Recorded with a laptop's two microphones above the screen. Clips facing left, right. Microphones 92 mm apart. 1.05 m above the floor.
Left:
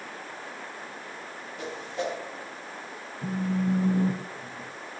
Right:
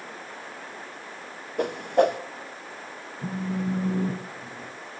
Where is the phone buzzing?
5° right (ahead or behind), 0.9 m.